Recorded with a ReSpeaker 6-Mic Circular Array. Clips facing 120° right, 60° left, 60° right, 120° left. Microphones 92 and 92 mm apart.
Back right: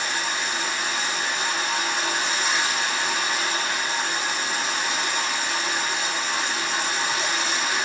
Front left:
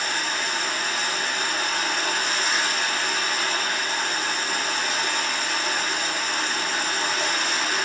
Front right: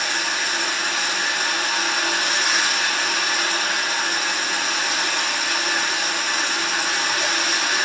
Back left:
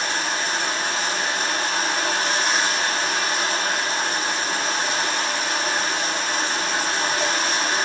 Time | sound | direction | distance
0.0 | running water | 75° left | 1.8 m